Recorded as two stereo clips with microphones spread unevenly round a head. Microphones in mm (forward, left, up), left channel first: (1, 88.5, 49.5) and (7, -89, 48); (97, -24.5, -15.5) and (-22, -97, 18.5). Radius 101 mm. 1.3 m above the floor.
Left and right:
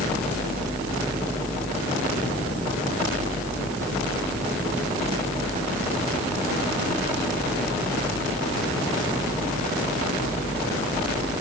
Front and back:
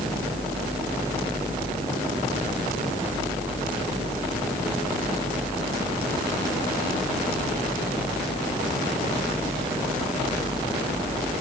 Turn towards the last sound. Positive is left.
No sound to turn to.